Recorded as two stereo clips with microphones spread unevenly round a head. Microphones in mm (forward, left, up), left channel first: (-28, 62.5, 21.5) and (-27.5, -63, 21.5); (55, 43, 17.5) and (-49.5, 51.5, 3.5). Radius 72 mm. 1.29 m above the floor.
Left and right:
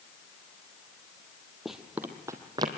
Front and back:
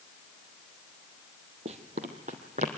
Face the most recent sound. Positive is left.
turn(degrees=-140)